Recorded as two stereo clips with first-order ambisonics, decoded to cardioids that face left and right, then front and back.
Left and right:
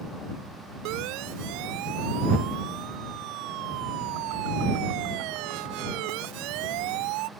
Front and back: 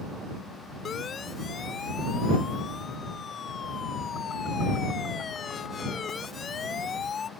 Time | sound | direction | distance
0.8 | a siren | 65° right | ?